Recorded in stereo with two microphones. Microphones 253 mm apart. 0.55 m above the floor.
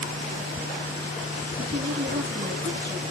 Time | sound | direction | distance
1.6 | a woman speaking | 45° right (ahead or behind) | 7.5 m